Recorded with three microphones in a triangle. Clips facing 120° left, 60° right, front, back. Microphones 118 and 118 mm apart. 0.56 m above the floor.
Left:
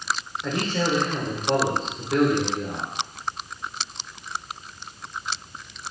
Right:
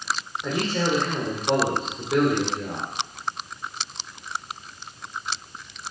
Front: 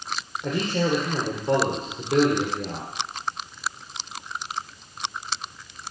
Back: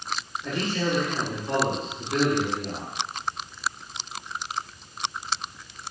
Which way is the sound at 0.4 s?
20° left.